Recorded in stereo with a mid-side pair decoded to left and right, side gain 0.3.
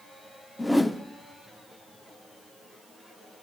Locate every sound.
0.6 s a whoosh: 15° left, 0.6 m